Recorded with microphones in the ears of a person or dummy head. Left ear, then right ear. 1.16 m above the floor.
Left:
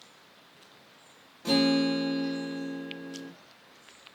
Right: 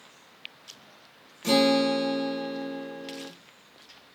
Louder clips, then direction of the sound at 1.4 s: Right 4 dB; 75° right (ahead or behind).